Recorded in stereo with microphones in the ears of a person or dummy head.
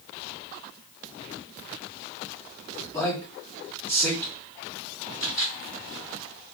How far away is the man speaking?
About 1.4 m.